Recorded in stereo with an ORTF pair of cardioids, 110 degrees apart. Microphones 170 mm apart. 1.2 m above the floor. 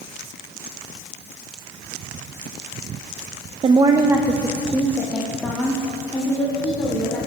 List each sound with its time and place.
3.6 s a woman speaking: 35° right, 0.7 m; by 7.2 s 10° left, 3.5 m